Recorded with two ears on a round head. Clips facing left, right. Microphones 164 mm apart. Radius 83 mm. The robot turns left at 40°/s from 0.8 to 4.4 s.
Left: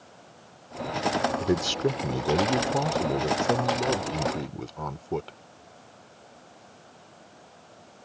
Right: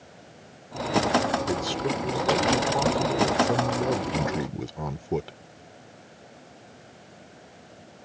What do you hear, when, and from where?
1.4 s a man speaking: 25° left (ahead or behind); by 5.4 s 10° right (ahead or behind)